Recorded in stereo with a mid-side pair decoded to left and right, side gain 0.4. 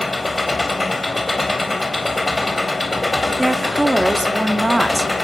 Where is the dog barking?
I don't hear a dog barking.